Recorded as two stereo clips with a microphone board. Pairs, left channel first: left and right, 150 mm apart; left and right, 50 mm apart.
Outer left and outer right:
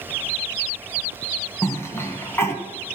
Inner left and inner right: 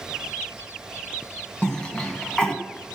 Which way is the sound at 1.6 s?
20° left (ahead or behind).